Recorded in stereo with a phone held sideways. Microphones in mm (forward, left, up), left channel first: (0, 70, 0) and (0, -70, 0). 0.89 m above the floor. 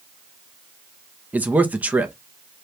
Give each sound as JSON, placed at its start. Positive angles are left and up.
{"t": 1.3, "sound": "a man speaking", "side_deg": -10, "distance_m": 0.8}